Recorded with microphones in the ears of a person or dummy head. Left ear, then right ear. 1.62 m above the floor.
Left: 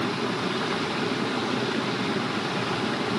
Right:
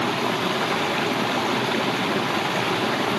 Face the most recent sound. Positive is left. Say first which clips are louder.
# right 4 dB
turn(degrees=-15)  # may be behind; listen again after turning